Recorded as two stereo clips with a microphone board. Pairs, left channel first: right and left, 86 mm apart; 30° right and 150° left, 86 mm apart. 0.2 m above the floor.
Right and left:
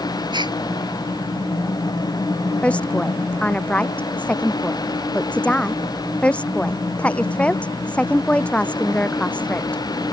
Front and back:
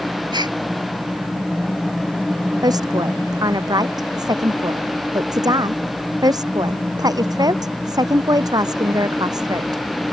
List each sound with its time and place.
0.3 s a gasp: 120° left
2.6 s a woman speaking: 165° right